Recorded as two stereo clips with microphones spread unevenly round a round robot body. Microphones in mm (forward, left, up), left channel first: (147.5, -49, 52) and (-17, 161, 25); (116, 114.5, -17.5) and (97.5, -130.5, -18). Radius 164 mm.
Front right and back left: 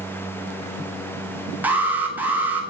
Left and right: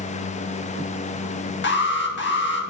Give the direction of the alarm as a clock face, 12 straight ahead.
10 o'clock.